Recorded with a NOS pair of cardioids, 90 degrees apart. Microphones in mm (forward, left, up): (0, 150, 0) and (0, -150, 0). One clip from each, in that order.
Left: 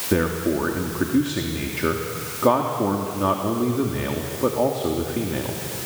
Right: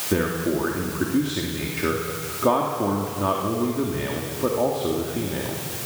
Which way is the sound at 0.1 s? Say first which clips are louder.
Left 2 dB; 15° left.